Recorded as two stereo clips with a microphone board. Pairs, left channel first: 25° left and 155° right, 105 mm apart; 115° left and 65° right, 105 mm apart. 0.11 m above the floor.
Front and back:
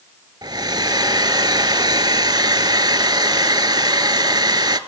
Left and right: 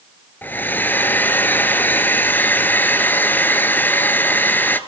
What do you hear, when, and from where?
0.4 s a hair dryer: 175° left, 0.7 m